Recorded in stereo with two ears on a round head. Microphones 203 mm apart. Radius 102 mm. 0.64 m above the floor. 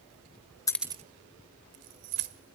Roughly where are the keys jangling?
Centre.